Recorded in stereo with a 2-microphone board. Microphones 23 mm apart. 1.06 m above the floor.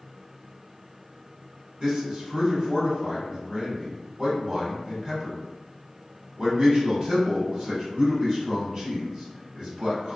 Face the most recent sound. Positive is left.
turn(degrees=-45)  # may be behind; listen again after turning